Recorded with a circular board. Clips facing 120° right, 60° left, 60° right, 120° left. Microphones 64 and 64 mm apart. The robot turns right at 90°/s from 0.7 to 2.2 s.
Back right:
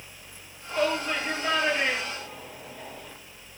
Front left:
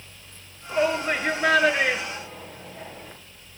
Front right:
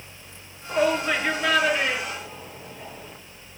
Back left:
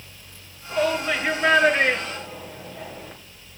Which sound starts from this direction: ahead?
A shout, at 0.7 s.